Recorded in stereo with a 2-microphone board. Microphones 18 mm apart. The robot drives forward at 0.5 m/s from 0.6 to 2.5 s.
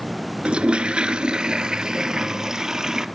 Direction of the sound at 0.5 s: 75° right (ahead or behind).